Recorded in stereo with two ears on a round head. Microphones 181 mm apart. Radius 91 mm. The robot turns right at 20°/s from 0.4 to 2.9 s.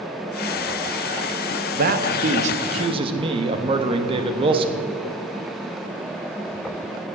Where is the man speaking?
45° right (ahead or behind), 1.0 m; by 4.8 s 25° right (ahead or behind), 1.0 m.